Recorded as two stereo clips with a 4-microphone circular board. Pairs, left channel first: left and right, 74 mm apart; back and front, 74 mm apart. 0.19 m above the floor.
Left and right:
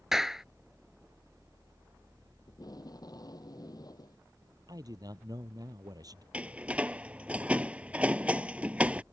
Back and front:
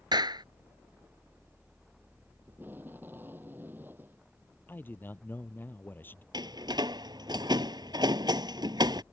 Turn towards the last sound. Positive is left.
turn(degrees=-20)